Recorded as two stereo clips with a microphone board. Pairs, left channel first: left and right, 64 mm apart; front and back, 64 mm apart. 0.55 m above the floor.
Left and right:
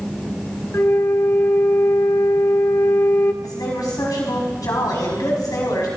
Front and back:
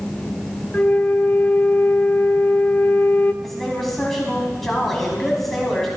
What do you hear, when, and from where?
0.7 s a flute: 60° left, 1.0 m
3.4 s a woman speaking: 90° left, 4.5 m